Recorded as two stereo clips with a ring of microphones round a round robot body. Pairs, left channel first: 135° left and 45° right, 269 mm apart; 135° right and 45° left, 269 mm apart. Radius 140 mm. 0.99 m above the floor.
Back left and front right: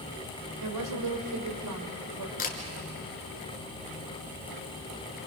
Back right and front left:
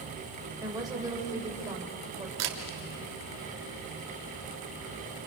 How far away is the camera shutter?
About 2 m.